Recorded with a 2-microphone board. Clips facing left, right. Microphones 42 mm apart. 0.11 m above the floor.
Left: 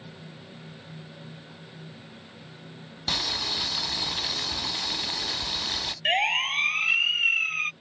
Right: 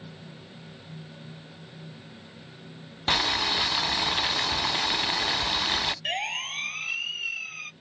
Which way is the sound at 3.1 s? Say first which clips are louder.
Right 5 dB; 35° right (ahead or behind).